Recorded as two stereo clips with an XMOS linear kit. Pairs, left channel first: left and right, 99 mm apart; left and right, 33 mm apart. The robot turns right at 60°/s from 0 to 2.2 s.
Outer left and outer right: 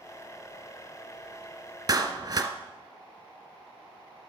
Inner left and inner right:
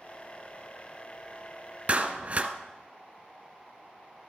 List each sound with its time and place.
1.9 s a clap: 35° right (ahead or behind), 1.1 m; by 2.5 s 40° right (ahead or behind), 1.1 m